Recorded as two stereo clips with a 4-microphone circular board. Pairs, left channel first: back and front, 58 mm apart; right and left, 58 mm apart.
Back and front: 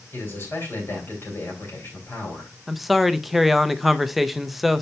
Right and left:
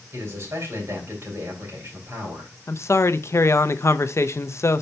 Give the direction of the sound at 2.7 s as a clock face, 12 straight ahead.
3 o'clock.